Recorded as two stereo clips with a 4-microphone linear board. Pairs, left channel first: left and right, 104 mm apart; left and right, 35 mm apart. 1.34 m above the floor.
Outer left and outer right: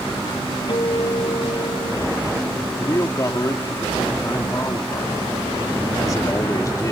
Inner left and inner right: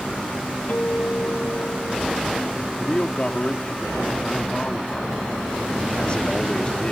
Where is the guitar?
50° left (ahead or behind).